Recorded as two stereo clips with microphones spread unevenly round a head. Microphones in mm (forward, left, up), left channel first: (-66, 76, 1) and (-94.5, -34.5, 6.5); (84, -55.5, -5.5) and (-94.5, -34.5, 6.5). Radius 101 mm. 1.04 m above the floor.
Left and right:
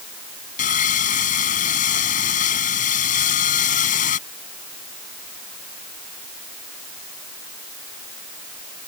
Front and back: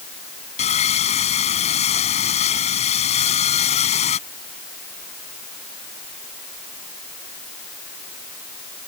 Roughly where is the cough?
No cough in this recording.